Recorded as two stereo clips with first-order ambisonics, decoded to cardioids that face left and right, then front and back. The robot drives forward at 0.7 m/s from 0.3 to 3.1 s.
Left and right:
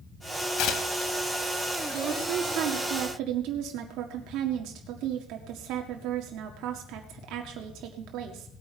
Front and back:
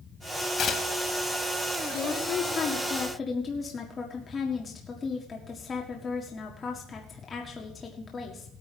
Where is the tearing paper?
55° left, 1.4 m; by 1.1 s 70° left, 1.2 m.